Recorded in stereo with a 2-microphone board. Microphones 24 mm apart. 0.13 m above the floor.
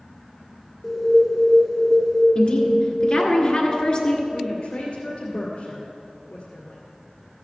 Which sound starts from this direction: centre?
An alarm, at 0.8 s.